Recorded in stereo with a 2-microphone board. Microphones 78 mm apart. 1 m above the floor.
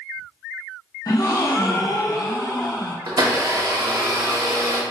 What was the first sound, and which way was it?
A gasp, 50° left (ahead or behind).